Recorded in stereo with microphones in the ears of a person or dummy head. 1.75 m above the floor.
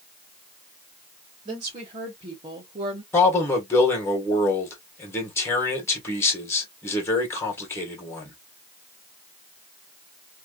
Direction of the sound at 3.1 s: 15° left (ahead or behind).